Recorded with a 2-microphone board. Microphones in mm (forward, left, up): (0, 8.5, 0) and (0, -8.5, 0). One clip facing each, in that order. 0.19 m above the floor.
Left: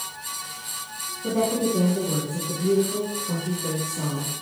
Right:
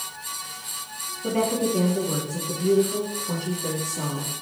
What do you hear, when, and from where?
1.2 s a woman speaking: 75° right (ahead or behind), 4.5 m